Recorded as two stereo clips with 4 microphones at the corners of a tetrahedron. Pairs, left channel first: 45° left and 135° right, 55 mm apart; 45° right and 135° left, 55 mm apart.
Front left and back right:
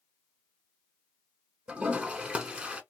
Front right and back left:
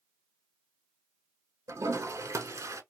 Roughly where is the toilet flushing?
Behind left.